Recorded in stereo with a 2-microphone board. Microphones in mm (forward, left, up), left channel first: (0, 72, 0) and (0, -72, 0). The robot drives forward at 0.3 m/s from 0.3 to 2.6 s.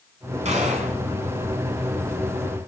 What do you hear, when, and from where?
0.5 s a gunshot: 50° right (ahead or behind), 2.0 m